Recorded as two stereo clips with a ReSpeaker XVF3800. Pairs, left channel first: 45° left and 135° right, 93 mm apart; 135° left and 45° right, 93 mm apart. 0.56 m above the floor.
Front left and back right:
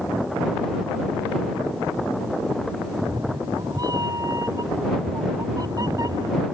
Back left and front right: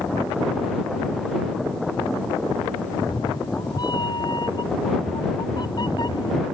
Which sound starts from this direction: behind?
A cat meowing, at 2.9 s.